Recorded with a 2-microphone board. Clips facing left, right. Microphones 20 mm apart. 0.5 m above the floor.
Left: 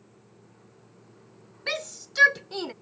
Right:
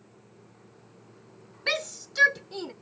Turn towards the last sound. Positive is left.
turn(degrees=30)  # may be behind; listen again after turning